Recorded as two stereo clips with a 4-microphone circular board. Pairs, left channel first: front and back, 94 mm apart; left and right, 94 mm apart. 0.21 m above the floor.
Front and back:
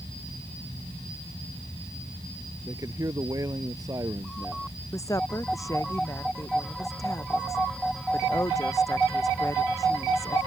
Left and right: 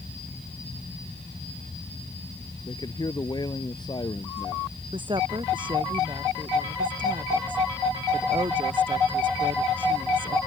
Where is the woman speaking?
55° right.